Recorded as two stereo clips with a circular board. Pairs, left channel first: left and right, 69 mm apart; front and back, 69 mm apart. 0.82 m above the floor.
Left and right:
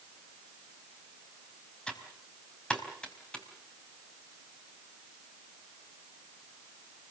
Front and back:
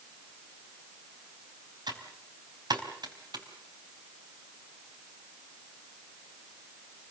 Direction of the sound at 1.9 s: 165° left.